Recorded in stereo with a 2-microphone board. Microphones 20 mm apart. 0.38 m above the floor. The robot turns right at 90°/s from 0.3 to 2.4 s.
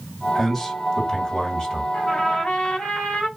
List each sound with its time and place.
0.3 s a man speaking: 5° right, 1.6 m; by 1.8 s 130° left, 1.6 m
1.9 s a trumpet: 45° left, 1.3 m; by 3.3 s 85° left, 1.3 m